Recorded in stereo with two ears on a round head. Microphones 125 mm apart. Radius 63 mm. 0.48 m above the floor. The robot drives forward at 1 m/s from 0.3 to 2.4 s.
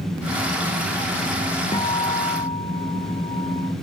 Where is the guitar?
30° left (ahead or behind); by 3.7 s 35° left (ahead or behind).